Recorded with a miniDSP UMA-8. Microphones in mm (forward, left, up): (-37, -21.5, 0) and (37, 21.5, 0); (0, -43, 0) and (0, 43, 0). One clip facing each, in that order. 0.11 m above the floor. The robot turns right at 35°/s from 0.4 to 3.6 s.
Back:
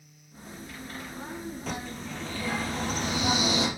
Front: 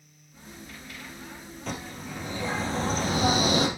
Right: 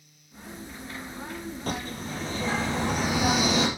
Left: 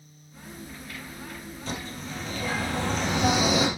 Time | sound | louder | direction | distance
1.7 | a bird | front 4 dB, right 2 dB | 65° right | 3 m